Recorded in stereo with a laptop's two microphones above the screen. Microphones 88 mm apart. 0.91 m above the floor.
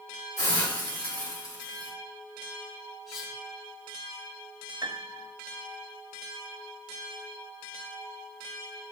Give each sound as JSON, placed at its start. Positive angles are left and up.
{"t": 0.4, "sound": "a hiss", "side_deg": 45, "distance_m": 3.0}
{"t": 3.1, "sound": "cutlery clinking", "side_deg": 0, "distance_m": 3.5}
{"t": 4.8, "sound": "a piano", "side_deg": -55, "distance_m": 0.6}